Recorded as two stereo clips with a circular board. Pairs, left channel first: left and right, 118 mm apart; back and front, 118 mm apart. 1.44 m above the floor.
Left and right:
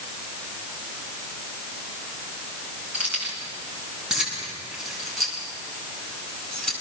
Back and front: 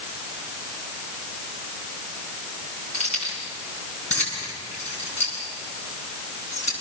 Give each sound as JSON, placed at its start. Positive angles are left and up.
{"t": 2.9, "sound": "keys jangling", "azimuth_deg": -170, "distance_m": 8.5}